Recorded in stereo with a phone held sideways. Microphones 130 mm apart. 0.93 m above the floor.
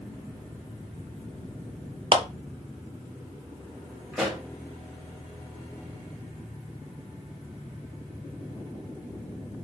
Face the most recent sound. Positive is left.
turn(degrees=0)  # may be behind; listen again after turning